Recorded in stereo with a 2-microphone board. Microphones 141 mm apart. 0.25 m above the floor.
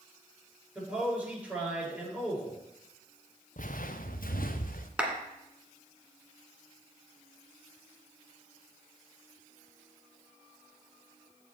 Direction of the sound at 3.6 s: 65° left (ahead or behind).